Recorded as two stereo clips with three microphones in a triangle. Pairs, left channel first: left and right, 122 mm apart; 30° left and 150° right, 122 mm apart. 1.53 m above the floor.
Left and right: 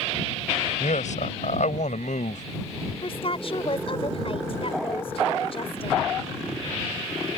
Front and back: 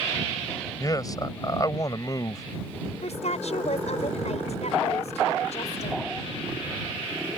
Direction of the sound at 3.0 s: 50° left.